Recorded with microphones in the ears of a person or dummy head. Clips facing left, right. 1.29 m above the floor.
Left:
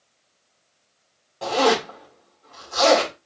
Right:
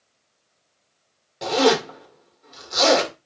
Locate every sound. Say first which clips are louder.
1.4 s a zipper: right 2 dB; 30° right (ahead or behind), 1.9 m